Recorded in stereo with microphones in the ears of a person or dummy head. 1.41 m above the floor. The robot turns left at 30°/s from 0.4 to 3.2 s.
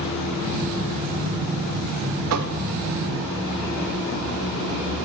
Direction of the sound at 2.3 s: 80° right.